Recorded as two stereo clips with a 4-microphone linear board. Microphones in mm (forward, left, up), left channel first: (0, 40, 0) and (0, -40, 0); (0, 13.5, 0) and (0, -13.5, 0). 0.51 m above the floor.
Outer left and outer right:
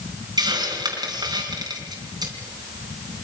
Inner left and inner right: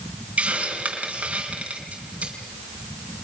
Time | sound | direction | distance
0.4 | a hiss | 55° right (ahead or behind) | 4 m